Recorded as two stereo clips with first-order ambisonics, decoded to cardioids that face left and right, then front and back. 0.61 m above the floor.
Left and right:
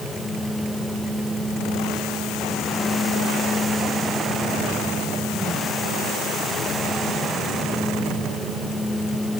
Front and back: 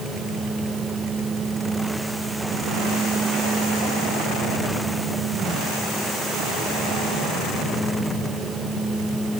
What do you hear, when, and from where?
Only background noise.